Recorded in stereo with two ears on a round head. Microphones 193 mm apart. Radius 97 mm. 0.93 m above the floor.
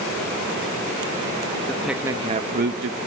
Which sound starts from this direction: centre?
A man speaking, at 1.7 s.